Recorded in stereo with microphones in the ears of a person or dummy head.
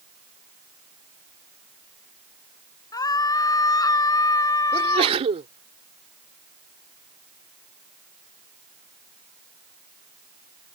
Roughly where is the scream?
Left.